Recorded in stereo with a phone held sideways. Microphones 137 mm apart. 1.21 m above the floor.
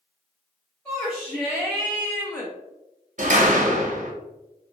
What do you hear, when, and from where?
0.8 s a shout: 15° left (ahead or behind), 1.5 m; by 2.5 s 10° left (ahead or behind), 0.5 m
3.2 s a door slam: 55° right (ahead or behind), 0.6 m